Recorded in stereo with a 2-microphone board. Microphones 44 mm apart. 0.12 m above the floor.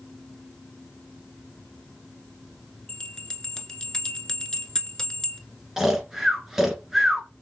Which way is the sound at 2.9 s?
15° left (ahead or behind).